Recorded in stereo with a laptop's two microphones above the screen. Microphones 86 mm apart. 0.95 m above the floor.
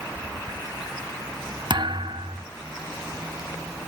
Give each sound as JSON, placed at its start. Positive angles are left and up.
{"t": 1.7, "sound": "a thud", "side_deg": -65, "distance_m": 1.0}